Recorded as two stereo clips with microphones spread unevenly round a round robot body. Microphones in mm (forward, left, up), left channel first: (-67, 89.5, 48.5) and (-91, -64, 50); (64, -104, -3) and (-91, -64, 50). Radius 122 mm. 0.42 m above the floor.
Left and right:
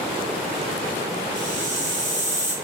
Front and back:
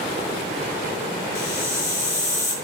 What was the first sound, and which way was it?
A hiss, 15° right.